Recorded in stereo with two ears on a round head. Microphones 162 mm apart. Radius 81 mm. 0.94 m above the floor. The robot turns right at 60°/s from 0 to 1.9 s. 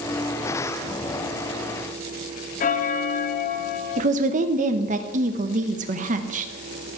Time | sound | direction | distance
2.6 | a bell | 40° left (ahead or behind) | 0.6 m
4.0 | a woman speaking | 45° right (ahead or behind) | 0.7 m